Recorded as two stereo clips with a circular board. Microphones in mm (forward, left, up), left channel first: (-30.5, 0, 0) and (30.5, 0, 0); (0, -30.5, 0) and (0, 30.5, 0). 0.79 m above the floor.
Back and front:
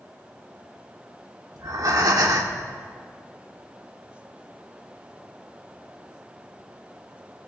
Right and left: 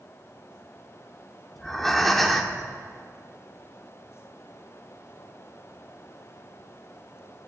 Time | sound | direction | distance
1.6 | breathing | 5° right | 1.6 m